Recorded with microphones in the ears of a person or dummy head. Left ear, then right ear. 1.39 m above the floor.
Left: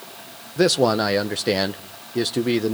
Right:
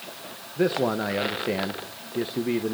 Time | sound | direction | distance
0.6 | a man speaking | 80° left | 1.0 m